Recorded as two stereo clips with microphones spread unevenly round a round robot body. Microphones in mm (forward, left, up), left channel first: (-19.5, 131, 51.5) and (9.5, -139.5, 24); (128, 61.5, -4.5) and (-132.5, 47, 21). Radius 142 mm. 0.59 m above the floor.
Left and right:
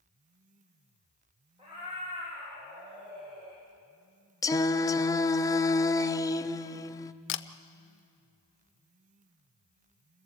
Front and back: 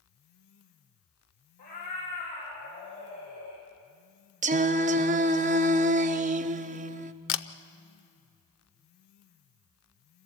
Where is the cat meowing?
10° right, 7.5 m; by 3.7 s 25° right, 6.5 m.